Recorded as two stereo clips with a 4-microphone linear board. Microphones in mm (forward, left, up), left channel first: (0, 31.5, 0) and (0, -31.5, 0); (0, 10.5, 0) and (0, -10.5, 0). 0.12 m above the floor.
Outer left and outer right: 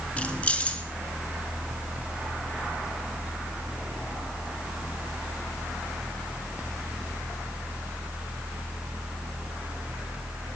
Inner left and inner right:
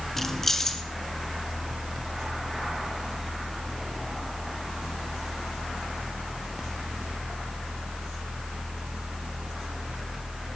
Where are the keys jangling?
20° left (ahead or behind), 0.9 m.